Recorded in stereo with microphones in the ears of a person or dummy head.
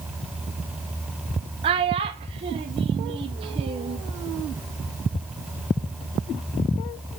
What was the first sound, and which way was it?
A child speaking, 30° right (ahead or behind).